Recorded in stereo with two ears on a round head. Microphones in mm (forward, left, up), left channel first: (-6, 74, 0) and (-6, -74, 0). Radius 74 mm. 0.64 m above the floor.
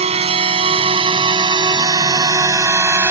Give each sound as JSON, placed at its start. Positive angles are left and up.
{"t": 0.0, "sound": "a drone", "side_deg": -40}